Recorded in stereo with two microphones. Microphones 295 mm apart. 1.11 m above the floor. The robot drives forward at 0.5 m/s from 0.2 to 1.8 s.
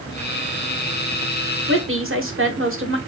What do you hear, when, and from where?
1.7 s a woman speaking: 45° right (ahead or behind), 0.8 m